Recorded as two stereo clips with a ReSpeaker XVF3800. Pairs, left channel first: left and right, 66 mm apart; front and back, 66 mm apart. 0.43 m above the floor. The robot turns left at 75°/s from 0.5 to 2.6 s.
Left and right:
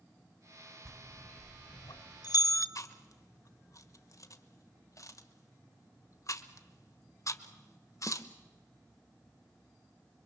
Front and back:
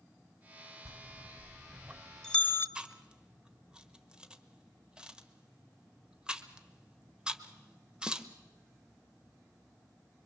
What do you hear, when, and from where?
0.8 s a bell: 170° right, 1.3 m; by 2.6 s 55° left, 1.3 m
2.8 s chewing: 105° left, 1.0 m